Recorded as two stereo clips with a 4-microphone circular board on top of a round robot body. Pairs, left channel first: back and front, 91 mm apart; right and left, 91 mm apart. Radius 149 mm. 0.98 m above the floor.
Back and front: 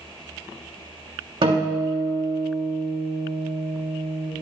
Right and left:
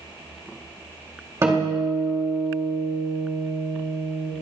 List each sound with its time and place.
1.4 s a guitar: 30° left, 3.5 m